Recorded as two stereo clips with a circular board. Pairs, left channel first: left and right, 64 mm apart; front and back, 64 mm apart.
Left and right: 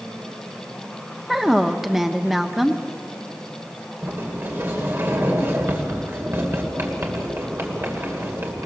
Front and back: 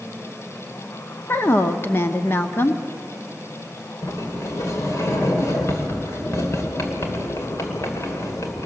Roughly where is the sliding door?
Ahead right.